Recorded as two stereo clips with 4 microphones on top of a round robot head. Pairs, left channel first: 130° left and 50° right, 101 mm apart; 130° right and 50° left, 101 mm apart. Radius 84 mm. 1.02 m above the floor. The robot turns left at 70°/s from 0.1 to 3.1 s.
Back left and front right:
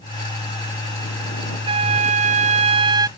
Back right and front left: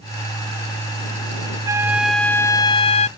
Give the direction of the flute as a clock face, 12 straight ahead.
12 o'clock.